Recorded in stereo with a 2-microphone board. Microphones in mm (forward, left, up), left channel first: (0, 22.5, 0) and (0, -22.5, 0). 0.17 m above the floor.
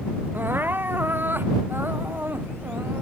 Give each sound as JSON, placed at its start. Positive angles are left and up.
{"t": 0.3, "sound": "crying", "side_deg": -50}